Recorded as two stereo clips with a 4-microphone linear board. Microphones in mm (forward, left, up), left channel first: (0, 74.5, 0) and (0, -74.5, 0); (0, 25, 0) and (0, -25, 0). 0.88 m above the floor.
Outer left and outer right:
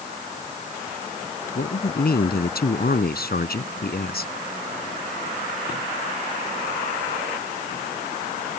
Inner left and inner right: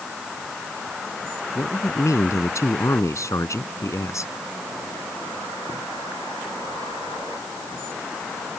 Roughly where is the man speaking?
Left.